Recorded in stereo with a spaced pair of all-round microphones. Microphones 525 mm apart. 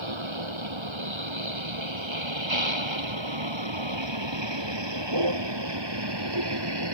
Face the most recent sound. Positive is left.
turn(degrees=-50)  # may be behind; listen again after turning